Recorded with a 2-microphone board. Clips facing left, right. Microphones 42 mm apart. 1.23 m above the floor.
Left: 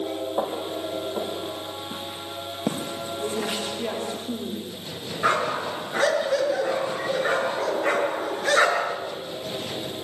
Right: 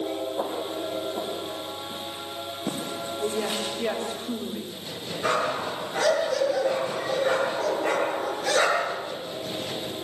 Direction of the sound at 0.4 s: 70° left (ahead or behind).